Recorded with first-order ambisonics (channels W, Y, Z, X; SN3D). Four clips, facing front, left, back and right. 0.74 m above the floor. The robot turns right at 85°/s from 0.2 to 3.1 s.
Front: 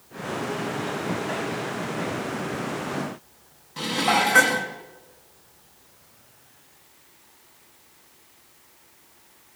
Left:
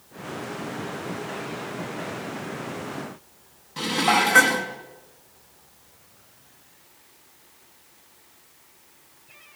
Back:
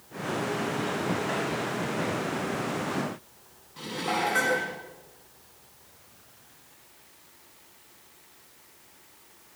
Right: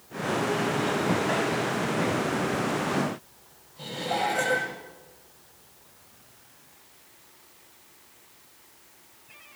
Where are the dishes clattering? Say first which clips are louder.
Left 8 dB, front 8 dB; 55° left, 5 m.